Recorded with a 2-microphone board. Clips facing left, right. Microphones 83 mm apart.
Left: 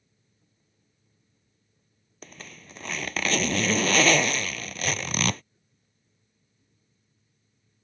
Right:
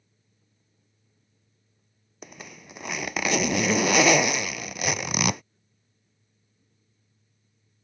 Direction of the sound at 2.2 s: 10° right (ahead or behind).